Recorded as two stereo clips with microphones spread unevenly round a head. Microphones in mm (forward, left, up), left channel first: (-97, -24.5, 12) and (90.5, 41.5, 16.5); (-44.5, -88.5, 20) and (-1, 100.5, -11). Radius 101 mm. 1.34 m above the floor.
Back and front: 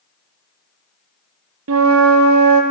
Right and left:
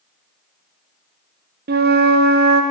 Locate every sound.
1.7 s a flute: 35° left, 0.6 m